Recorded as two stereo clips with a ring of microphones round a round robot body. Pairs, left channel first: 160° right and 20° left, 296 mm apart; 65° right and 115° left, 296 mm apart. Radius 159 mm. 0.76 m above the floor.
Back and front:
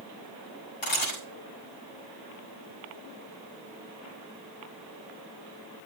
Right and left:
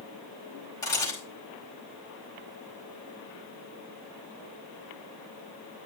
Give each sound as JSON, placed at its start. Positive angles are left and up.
{"t": 0.8, "sound": "a camera shutter", "azimuth_deg": -145, "distance_m": 8.0}